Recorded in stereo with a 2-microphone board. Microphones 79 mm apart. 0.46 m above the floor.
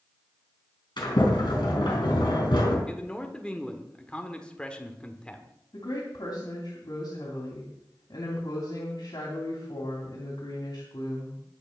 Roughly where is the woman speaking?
Left.